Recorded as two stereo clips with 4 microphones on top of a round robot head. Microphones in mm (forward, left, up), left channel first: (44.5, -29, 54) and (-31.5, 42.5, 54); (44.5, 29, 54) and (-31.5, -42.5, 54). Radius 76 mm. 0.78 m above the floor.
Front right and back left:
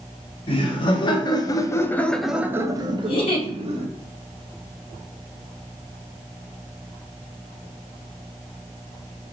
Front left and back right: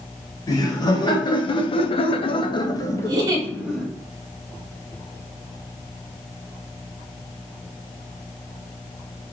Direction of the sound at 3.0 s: 80° right.